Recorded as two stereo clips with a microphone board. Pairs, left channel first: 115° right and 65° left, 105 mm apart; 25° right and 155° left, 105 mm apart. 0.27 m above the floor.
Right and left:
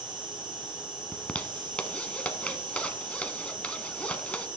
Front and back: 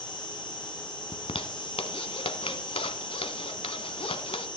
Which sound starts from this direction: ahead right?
A zipper, at 1.1 s.